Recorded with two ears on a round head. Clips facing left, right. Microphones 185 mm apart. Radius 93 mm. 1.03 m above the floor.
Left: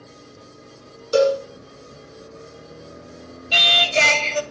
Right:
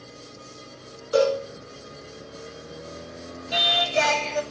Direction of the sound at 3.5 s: 35° left (ahead or behind).